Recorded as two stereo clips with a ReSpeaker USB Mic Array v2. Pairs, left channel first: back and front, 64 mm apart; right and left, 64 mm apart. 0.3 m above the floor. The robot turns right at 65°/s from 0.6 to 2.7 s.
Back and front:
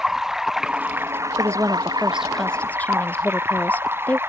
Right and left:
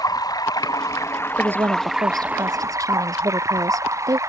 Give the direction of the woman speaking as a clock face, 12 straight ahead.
11 o'clock.